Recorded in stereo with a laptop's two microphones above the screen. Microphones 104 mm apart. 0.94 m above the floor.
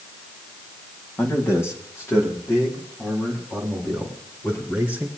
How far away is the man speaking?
About 1.7 m.